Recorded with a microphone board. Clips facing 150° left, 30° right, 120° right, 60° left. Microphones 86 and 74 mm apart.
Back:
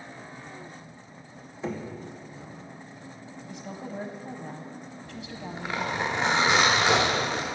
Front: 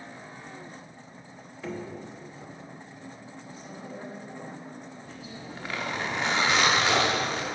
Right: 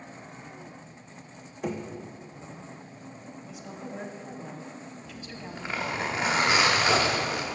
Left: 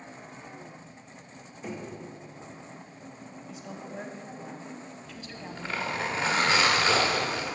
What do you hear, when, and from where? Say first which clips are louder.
1.6 s knocking: back 2 dB, right 5 dB; 140° right, 0.9 m
3.5 s a woman speaking: back 4 dB, right 1 dB; 155° left, 0.9 m
5.0 s a zipper: back 3 dB, right 1 dB; 170° right, 1.1 m